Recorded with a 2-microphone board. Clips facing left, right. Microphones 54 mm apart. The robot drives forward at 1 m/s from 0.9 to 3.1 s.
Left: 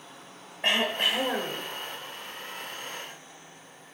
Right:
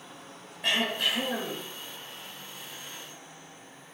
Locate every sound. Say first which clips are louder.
0.6 s throat clearing: left 2 dB; 35° left (ahead or behind), 2 m; by 1.6 s 50° left (ahead or behind), 1.6 m